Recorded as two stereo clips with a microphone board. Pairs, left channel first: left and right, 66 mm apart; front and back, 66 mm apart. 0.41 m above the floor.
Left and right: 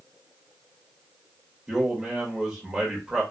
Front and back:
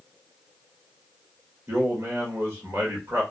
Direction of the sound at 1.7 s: 160° right.